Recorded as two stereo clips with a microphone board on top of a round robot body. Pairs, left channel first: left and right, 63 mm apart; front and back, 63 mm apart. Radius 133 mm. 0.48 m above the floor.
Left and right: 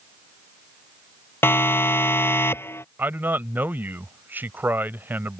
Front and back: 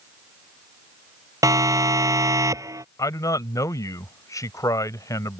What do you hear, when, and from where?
1.4 s a siren: 145° left
3.0 s a man speaking: 30° right